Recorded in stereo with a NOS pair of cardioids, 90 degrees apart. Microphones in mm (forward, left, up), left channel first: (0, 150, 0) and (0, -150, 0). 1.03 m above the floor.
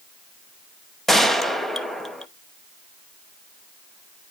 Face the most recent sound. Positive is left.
turn(degrees=0)